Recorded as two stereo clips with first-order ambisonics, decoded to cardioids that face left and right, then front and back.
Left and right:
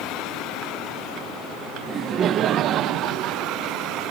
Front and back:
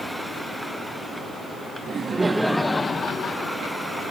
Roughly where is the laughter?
Behind right.